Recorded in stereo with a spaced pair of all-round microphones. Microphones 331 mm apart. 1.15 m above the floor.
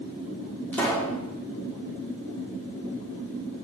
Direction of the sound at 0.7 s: 5° left (ahead or behind).